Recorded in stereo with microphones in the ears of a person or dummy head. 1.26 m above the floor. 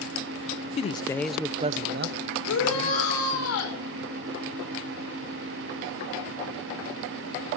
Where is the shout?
80° left, 5 m.